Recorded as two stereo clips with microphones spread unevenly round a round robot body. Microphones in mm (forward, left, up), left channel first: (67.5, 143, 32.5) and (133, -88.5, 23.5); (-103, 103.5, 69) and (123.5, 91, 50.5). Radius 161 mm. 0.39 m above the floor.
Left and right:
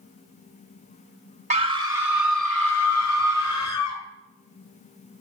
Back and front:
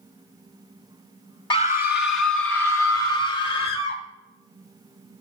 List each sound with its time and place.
1.5 s a scream: 120° right, 1.1 m; by 4.0 s straight behind, 3 m